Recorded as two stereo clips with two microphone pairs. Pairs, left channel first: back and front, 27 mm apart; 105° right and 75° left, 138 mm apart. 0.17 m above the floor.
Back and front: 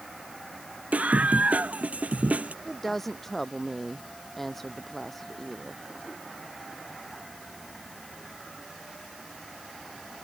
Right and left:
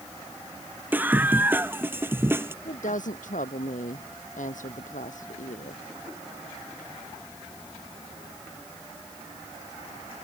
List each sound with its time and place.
0.9 s a scream: straight ahead; by 2.5 s 5° left
2.6 s a woman speaking: 105° right